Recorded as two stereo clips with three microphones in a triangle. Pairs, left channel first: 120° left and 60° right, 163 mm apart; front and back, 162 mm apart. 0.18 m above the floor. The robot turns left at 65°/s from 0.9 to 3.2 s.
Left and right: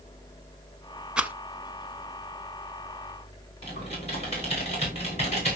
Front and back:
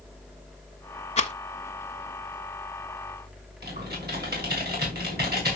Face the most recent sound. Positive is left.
turn(degrees=170)